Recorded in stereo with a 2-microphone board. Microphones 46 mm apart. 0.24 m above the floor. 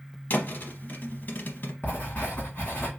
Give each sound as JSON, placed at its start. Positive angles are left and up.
{"t": 0.3, "sound": "a thud", "side_deg": 40, "distance_m": 0.7}
{"t": 1.8, "sound": "writing", "side_deg": 30, "distance_m": 2.5}